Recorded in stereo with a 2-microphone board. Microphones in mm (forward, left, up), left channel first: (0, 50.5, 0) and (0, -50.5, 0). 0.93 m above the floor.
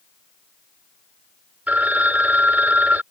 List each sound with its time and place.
1.7 s a phone ringing: 15° right (ahead or behind)